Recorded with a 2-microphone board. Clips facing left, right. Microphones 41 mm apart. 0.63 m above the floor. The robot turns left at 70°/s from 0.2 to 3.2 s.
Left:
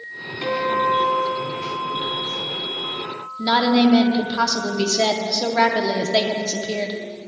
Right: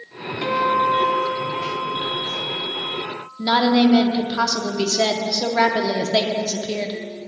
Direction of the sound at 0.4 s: Straight ahead.